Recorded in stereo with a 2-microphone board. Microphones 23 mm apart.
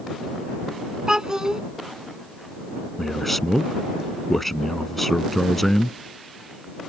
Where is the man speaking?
5° left (ahead or behind).